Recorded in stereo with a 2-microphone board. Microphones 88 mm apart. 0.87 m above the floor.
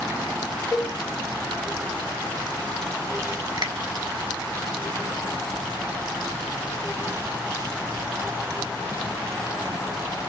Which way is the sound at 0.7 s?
35° left (ahead or behind).